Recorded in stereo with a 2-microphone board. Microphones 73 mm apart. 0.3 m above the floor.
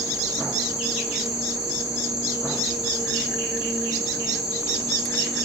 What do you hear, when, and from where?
0.0 s an insect: 10° right (ahead or behind), 1.3 m